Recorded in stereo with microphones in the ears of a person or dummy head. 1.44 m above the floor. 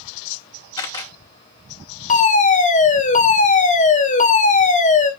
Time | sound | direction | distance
0.8 | a camera shutter | 25° left (ahead or behind) | 3 m
2.1 | a fire alarm | 35° left (ahead or behind) | 1.6 m